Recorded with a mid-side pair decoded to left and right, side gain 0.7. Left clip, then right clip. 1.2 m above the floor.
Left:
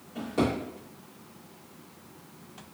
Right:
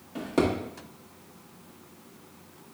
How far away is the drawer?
About 1.2 m.